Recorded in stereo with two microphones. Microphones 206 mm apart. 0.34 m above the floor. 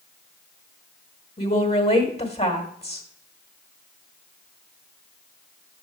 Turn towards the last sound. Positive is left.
turn(degrees=30)  # may be behind; listen again after turning